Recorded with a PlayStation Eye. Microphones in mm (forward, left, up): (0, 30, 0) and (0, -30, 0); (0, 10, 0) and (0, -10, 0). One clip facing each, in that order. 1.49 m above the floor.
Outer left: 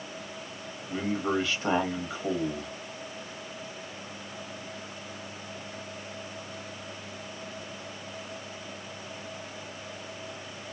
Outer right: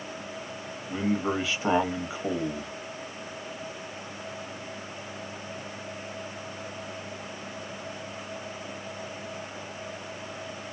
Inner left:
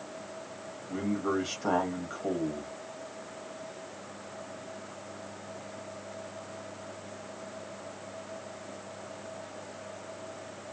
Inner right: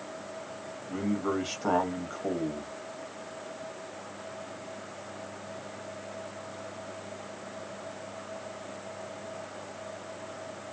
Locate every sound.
0.9 s a man speaking: 10° right (ahead or behind), 1.3 m